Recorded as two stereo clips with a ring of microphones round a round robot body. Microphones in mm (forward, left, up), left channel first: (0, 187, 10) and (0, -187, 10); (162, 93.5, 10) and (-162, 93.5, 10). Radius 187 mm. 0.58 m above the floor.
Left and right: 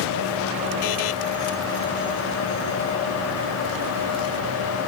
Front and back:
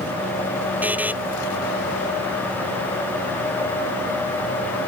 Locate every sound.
0.8 s a buzzer: 95° left